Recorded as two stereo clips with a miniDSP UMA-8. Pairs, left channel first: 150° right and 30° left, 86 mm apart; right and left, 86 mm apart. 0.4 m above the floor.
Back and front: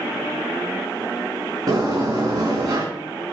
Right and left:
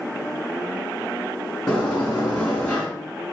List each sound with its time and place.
1.7 s a sliding door: 10° right, 3 m